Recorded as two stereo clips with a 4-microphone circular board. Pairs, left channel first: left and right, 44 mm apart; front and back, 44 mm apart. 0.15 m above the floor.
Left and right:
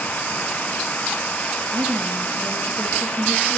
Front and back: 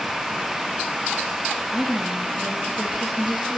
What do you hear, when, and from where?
1.7 s a woman speaking: 85° right, 5.5 m; by 3.6 s 100° right, 6.5 m